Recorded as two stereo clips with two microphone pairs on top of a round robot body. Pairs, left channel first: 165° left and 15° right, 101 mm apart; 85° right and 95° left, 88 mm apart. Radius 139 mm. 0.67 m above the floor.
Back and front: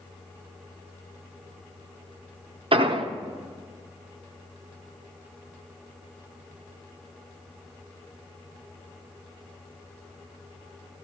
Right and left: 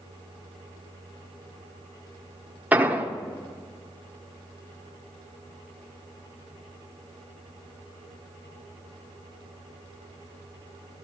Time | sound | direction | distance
2.7 | an explosion | 20° left | 1.1 m